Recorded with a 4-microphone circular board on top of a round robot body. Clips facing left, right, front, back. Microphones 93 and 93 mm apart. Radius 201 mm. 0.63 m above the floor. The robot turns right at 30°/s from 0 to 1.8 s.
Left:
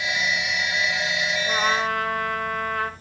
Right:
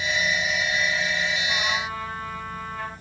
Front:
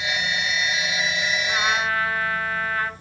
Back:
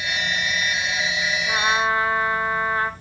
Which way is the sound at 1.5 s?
100° left.